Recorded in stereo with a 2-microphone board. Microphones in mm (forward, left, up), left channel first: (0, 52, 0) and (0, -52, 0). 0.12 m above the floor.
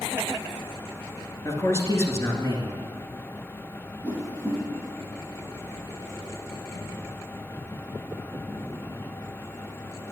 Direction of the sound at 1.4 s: 25° left (ahead or behind).